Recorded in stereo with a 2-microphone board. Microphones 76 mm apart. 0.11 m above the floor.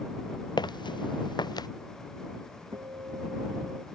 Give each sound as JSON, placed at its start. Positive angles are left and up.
{"t": 0.6, "sound": "footsteps", "side_deg": 70}
{"t": 2.7, "sound": "a guitar", "side_deg": -80}